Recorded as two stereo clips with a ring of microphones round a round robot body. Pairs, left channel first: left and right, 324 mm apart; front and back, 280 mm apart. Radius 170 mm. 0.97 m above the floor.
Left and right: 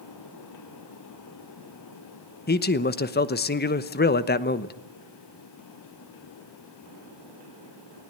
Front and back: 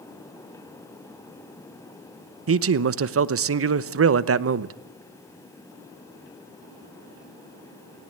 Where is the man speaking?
150° left, 1.0 m.